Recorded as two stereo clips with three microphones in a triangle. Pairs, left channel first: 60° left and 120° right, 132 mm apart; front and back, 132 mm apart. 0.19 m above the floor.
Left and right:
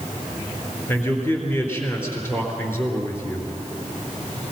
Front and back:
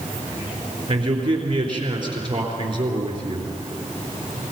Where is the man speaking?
130° left, 3.5 m.